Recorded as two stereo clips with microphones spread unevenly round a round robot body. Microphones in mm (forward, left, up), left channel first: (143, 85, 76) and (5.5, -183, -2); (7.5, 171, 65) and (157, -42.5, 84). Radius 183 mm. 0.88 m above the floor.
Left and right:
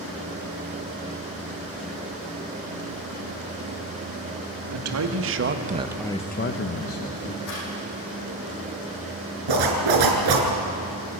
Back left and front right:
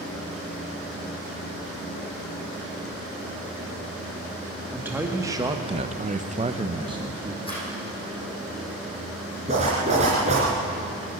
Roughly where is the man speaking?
Behind right.